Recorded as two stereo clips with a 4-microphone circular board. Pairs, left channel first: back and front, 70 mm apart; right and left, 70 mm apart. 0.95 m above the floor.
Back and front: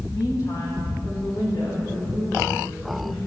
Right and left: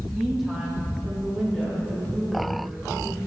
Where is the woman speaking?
175° left, 2.0 m; by 3.2 s straight behind, 6.5 m.